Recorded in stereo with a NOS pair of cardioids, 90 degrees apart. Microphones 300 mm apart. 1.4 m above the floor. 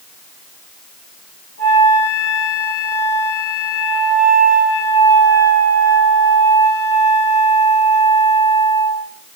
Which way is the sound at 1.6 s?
55° left.